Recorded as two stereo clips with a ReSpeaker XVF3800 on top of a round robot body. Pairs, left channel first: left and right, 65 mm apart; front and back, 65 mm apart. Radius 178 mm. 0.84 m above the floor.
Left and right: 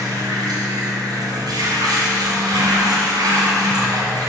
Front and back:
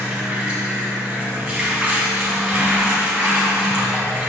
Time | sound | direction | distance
0.0 | running water | 110° right | 1.7 m